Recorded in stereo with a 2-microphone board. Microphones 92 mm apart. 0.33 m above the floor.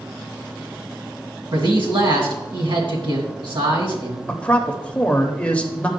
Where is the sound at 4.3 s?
15° left (ahead or behind), 0.8 m.